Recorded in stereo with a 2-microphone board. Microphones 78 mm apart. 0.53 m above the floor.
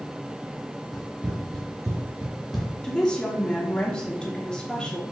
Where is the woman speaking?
10° left (ahead or behind), 0.9 m.